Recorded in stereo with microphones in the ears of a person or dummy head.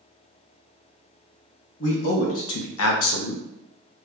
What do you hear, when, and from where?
1.8 s a man speaking: 70° left (ahead or behind), 0.9 m; by 3.4 s 45° left (ahead or behind), 0.5 m